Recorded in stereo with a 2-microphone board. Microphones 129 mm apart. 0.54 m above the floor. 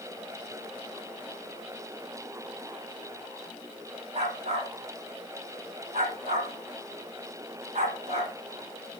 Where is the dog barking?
60° right (ahead or behind), 10 m.